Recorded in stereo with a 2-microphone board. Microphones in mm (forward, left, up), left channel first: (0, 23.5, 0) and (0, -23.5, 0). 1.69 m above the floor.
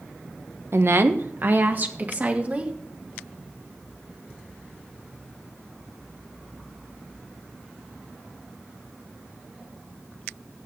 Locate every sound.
0.7 s a woman speaking: 65° right (ahead or behind), 1.1 m; by 2.7 s 35° right (ahead or behind), 2 m